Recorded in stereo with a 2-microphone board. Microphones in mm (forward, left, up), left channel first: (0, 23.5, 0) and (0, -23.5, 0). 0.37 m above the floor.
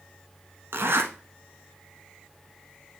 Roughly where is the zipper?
Right.